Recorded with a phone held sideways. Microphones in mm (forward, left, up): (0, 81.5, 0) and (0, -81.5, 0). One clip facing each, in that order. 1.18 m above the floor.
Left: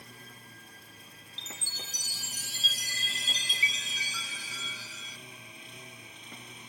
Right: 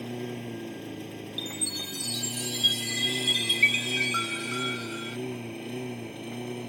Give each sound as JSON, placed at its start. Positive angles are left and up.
{"t": 0.0, "sound": "a lawn mower", "side_deg": -85}
{"t": 1.4, "sound": "a chime", "side_deg": 40}